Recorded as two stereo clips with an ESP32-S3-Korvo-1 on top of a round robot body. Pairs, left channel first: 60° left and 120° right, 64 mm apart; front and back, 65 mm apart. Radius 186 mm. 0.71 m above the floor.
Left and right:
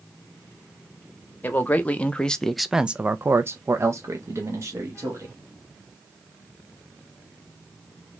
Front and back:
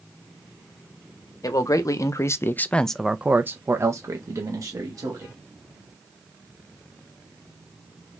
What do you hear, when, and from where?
1.4 s a man speaking: straight ahead, 0.9 m; by 5.3 s 160° right, 1.4 m